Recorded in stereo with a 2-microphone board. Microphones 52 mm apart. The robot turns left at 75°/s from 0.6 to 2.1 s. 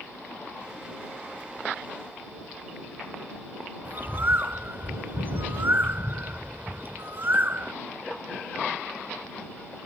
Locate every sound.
3.9 s a bird: 40° right (ahead or behind)